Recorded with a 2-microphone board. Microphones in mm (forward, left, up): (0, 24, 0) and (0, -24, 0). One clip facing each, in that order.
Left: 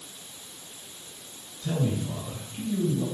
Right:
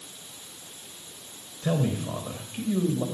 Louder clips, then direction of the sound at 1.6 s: Right 2 dB; 60° right (ahead or behind).